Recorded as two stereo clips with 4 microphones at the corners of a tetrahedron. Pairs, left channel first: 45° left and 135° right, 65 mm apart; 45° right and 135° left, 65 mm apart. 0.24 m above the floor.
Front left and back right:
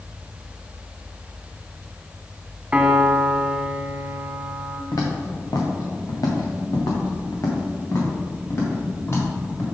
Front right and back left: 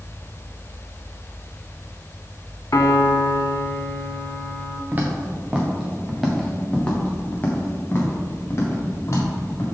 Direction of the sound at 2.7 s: 70° right.